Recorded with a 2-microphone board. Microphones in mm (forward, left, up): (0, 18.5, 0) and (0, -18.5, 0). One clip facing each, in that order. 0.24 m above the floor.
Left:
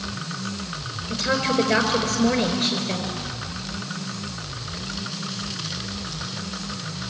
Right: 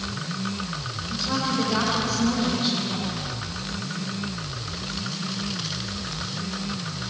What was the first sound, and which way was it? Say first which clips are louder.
A woman speaking: left 4 dB; 65° left (ahead or behind).